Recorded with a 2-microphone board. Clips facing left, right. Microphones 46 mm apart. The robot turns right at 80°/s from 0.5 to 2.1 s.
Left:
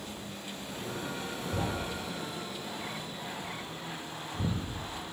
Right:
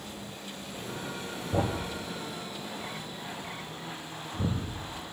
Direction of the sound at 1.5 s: 70° right (ahead or behind).